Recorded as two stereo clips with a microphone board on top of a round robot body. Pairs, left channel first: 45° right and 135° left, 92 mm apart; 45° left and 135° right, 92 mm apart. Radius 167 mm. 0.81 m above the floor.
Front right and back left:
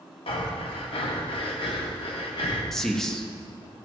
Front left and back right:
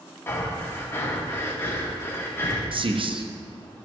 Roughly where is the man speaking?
Behind right.